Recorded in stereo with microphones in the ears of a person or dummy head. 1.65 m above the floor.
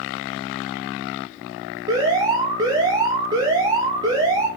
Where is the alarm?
15° right (ahead or behind), 0.6 m.